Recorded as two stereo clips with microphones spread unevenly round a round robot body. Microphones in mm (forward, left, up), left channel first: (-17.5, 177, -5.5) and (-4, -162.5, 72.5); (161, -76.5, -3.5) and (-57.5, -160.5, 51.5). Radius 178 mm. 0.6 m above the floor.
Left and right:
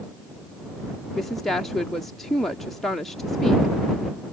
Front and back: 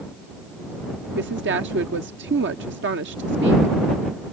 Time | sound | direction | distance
1.1 | a woman speaking | 165° left | ?